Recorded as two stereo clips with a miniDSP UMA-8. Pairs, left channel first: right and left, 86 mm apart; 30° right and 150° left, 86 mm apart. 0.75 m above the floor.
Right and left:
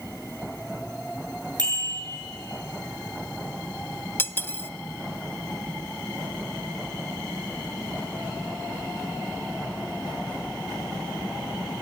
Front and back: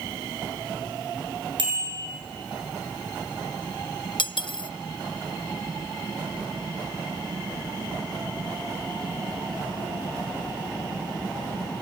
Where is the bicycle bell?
125° left, 8.5 m.